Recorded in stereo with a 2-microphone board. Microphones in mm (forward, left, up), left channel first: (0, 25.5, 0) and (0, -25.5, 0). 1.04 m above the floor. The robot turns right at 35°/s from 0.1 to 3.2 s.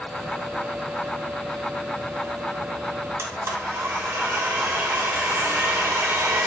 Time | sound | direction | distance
3.2 | a blender | 50° right (ahead or behind) | 0.7 m